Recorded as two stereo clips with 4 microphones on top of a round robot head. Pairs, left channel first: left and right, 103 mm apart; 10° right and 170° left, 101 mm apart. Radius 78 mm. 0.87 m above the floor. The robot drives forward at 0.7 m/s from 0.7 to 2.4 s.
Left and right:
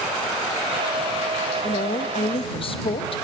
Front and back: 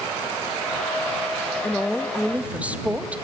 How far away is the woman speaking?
About 1.3 m.